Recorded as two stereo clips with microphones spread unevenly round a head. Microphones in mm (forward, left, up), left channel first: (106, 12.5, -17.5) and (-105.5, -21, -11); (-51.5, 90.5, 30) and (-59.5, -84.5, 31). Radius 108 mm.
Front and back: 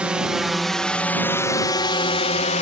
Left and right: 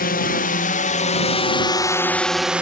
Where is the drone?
105° left; by 2.6 s 15° right.